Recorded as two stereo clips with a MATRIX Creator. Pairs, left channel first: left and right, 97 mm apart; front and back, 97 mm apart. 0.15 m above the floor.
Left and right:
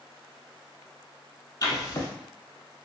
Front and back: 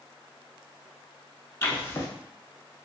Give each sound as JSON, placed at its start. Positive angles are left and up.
{"t": 1.6, "sound": "writing", "azimuth_deg": 55, "distance_m": 0.6}